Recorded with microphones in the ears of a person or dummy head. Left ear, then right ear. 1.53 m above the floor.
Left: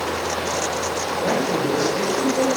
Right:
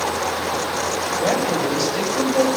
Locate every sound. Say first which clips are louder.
1.2 s a woman speaking: right 1 dB; 75° right (ahead or behind), 7 m